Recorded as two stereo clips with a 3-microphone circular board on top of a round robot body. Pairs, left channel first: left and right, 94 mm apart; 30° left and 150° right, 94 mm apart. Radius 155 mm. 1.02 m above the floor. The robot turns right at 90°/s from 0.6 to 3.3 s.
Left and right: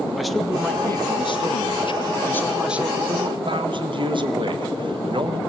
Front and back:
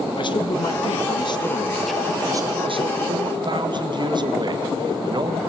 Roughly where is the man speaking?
Ahead.